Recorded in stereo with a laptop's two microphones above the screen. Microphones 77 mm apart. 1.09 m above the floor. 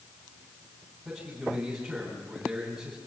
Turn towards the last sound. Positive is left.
turn(degrees=-5)  # may be behind; listen again after turning